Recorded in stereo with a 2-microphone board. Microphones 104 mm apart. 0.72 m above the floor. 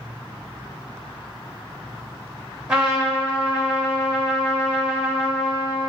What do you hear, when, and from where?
2.7 s a trumpet: 10° right (ahead or behind), 2 m